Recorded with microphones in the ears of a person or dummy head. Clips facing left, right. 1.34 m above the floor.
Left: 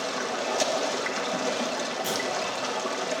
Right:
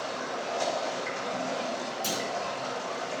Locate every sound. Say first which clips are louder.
0.0 s running water: left 4 dB; 85° left, 1.6 m
2.0 s a clunk: left 2 dB; 30° right (ahead or behind), 3.5 m